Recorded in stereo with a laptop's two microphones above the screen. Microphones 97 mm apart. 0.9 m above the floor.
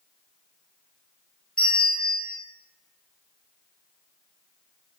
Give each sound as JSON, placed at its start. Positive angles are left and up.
{"t": 1.6, "sound": "a bell", "side_deg": 10, "distance_m": 0.6}